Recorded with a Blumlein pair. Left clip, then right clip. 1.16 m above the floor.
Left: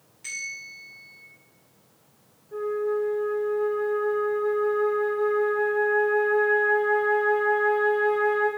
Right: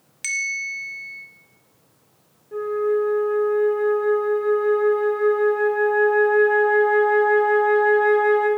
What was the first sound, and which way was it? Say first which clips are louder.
A bell: right 10 dB; 40° right.